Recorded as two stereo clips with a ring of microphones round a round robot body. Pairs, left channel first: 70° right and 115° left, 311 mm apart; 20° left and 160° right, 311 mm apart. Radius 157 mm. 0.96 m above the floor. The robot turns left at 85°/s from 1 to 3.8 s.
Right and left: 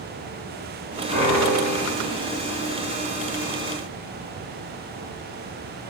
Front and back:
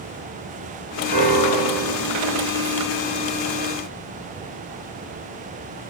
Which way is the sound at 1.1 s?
165° right.